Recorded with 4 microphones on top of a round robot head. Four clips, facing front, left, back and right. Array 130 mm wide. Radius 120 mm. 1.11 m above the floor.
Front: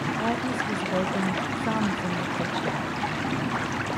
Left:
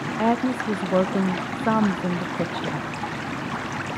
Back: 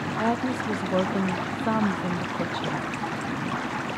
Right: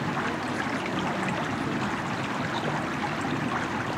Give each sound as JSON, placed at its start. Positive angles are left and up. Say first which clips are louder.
{"t": 0.2, "sound": "a woman speaking", "louder": "left 7 dB, back 4 dB", "azimuth_deg": 105, "distance_m": 0.7}